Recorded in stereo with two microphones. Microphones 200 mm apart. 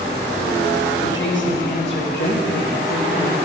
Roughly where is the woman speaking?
Left.